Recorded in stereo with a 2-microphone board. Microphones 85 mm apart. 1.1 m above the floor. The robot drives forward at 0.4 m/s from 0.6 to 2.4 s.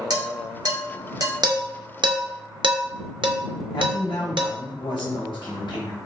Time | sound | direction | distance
0.1 | dishes clattering | 55° right (ahead or behind) | 1.7 m
1.4 | dishes clattering | 55° right (ahead or behind) | 0.8 m
3.7 | a man speaking | 65° left (ahead or behind) | 1.1 m